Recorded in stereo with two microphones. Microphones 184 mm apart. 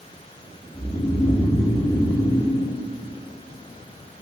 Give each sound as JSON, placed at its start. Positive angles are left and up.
{"t": 0.7, "sound": "snoring", "side_deg": 25, "distance_m": 7.0}